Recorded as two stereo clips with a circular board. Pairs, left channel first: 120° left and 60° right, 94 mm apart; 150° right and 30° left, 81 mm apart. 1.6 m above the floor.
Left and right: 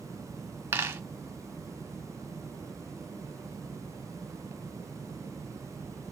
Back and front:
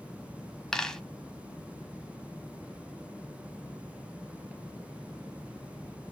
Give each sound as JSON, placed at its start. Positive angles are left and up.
{"t": 0.7, "sound": "a dropped coin", "azimuth_deg": -80, "distance_m": 1.2}